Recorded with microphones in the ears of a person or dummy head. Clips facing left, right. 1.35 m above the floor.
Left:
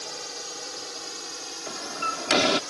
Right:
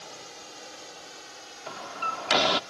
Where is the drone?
75° left (ahead or behind); by 2.7 s 70° left (ahead or behind).